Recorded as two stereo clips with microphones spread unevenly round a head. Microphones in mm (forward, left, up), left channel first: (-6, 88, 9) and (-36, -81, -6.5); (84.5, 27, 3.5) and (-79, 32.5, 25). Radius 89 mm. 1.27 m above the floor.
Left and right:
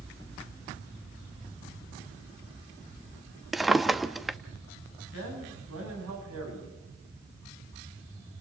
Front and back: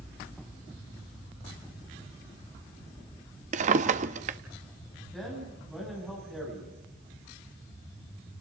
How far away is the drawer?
About 0.8 m.